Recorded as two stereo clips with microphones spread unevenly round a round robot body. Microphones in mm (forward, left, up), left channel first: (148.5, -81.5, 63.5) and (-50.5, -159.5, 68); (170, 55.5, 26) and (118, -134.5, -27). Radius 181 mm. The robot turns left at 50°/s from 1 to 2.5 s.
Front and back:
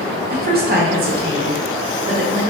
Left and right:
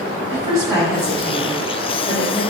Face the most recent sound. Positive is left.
turn(degrees=130)